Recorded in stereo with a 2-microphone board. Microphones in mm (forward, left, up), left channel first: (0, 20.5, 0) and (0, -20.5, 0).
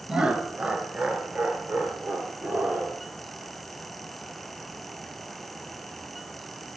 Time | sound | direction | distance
0.1 | laughter | 20° right (ahead or behind) | 1.6 m